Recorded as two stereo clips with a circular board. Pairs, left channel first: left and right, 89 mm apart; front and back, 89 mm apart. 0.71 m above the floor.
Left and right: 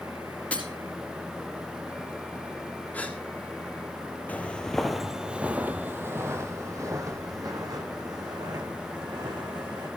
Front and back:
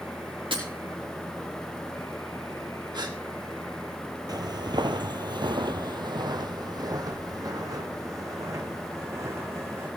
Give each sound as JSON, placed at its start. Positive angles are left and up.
{"t": 0.5, "sound": "breaking glass", "azimuth_deg": 165, "distance_m": 4.0}
{"t": 2.9, "sound": "a gasp", "azimuth_deg": 160, "distance_m": 1.8}
{"t": 4.3, "sound": "footsteps", "azimuth_deg": 155, "distance_m": 1.1}